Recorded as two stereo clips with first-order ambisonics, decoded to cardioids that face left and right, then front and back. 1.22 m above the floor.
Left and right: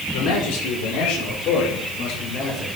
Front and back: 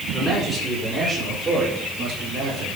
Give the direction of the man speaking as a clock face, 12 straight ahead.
9 o'clock.